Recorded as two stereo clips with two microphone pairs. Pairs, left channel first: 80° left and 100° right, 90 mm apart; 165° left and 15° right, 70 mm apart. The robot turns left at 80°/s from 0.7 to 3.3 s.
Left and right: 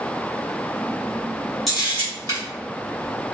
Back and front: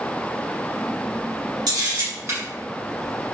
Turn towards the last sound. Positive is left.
turn(degrees=-140)